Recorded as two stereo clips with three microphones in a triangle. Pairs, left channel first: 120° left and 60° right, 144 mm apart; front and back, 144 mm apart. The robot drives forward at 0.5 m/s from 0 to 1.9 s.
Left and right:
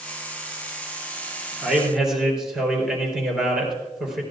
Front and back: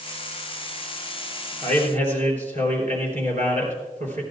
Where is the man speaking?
145° right, 3.5 m.